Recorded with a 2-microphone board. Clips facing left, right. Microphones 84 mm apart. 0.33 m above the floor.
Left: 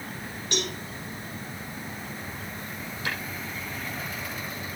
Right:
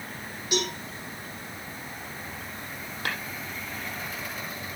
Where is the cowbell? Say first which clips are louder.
Right 3 dB; 5° right (ahead or behind), 6.5 m.